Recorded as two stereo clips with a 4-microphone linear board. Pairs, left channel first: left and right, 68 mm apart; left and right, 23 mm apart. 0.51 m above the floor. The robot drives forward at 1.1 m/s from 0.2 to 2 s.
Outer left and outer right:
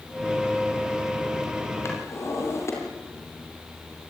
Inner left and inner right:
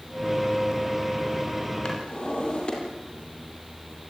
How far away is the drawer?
About 6 m.